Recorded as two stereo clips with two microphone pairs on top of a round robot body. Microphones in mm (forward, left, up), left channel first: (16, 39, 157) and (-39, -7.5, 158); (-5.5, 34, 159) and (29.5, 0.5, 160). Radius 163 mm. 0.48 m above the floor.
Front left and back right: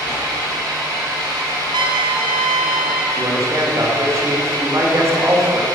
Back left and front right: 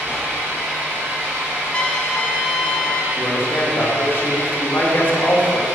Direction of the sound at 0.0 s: 100° right.